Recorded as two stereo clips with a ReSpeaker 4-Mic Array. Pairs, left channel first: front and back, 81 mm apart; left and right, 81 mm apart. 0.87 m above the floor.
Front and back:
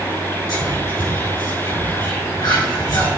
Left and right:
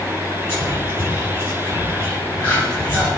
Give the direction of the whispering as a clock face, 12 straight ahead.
11 o'clock.